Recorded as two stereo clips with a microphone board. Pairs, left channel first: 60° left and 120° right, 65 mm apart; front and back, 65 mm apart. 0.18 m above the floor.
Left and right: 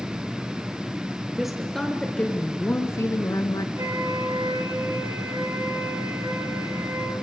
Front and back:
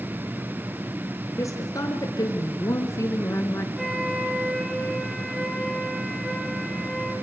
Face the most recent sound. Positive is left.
turn(degrees=-90)